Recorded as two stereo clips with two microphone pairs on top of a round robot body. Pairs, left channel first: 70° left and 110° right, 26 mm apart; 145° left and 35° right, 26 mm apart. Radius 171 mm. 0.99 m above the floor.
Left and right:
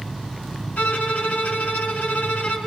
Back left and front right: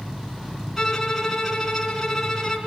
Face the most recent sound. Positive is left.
turn(degrees=60)